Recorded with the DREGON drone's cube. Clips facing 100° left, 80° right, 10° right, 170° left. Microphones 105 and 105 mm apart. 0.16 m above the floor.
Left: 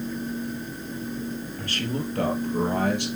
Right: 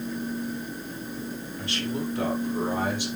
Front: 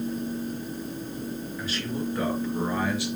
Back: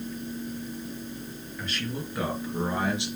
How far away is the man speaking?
About 3 m.